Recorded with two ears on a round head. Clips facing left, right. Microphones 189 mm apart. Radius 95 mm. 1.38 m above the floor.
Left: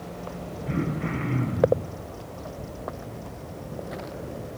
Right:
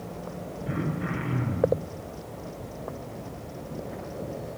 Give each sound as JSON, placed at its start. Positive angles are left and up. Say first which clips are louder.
{"t": 0.7, "sound": "throat clearing", "louder": "left 3 dB", "side_deg": -10, "distance_m": 6.0}